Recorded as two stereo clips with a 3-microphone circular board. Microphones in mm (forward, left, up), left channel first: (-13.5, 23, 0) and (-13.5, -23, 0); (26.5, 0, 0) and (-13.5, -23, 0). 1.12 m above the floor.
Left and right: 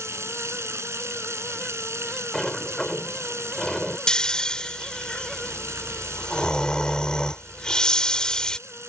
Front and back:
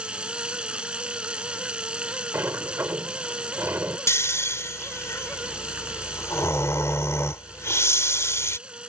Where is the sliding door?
170° left.